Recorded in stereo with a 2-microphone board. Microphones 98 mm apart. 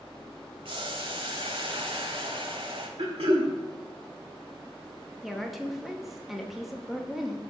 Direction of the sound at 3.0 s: 80° right.